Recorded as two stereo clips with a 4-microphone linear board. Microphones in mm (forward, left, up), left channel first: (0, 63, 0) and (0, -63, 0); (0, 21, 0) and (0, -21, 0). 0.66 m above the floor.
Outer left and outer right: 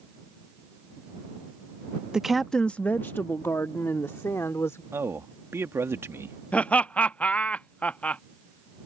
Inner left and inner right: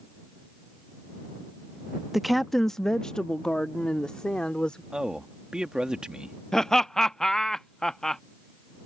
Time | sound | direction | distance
2.1 | a woman speaking | 5° right (ahead or behind) | ?
4.9 | a man speaking | 20° right (ahead or behind) | ?
6.5 | laughter | 10° left (ahead or behind) | ?